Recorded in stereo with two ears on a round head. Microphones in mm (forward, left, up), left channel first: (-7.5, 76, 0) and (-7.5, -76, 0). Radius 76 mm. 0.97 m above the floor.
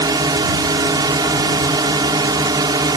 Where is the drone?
25° right (ahead or behind).